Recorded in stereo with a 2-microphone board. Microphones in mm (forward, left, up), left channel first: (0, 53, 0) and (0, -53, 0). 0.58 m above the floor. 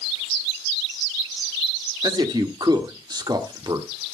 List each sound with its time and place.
2.0 s a man speaking: 40° right (ahead or behind), 1.6 m